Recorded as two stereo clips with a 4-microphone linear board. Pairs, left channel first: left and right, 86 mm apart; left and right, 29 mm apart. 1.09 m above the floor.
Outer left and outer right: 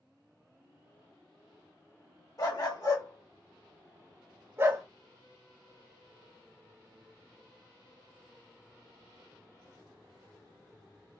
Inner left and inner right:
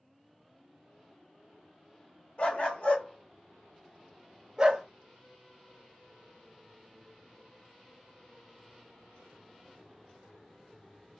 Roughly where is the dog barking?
Left.